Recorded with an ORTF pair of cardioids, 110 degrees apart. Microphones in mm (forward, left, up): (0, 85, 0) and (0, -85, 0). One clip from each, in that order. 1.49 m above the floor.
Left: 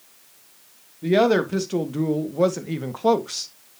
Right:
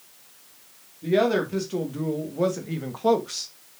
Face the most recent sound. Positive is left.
turn(degrees=15)